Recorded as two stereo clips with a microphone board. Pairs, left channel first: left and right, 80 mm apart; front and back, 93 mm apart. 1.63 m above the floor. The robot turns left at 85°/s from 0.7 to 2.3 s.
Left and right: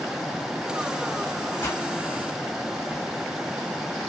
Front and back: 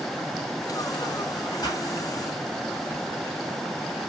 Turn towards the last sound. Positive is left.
turn(degrees=-15)